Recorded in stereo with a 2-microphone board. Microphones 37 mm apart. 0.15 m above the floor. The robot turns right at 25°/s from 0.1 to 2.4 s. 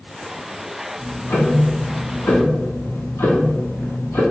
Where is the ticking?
65° left, 0.7 m; by 4.2 s 100° left, 0.7 m.